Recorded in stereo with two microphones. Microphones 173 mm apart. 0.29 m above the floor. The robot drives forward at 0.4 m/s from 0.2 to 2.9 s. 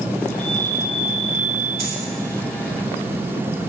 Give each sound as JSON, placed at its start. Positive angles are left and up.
{"t": 0.3, "sound": "a chime", "side_deg": 40, "distance_m": 0.8}
{"t": 1.8, "sound": "a dropped coin", "side_deg": -35, "distance_m": 1.1}